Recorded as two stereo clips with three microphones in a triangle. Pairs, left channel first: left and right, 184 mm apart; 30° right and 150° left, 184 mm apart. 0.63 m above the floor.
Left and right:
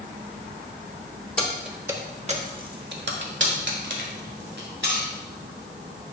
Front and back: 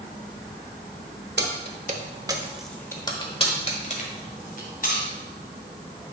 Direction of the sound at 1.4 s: 175° left.